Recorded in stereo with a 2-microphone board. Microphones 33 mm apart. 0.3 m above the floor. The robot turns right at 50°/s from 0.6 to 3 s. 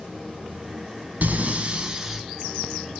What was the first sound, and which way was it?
Breathing, 55° right.